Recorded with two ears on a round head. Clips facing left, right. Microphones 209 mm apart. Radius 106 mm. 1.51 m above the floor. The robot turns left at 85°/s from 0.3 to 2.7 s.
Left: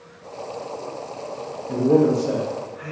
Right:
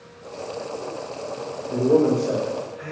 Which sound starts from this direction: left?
A man speaking, at 1.7 s.